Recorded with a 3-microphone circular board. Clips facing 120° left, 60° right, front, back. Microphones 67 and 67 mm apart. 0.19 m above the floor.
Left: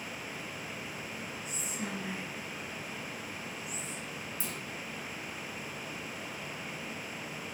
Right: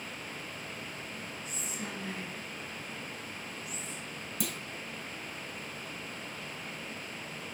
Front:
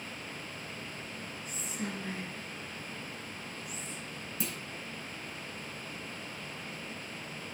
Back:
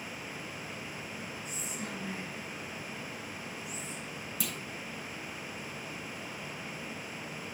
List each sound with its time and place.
1.4 s whispering: 30° left, 3.5 m
4.4 s a clunk: 65° right, 0.9 m